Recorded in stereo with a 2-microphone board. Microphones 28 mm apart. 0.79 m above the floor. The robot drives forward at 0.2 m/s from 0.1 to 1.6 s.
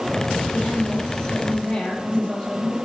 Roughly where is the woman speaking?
Left.